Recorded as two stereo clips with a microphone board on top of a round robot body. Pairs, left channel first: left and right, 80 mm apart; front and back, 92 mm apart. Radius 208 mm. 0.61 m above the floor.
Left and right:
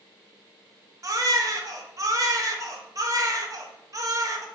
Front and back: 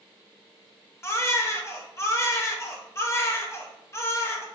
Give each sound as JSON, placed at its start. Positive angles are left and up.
{"t": 1.0, "sound": "a baby crying", "azimuth_deg": -55, "distance_m": 1.0}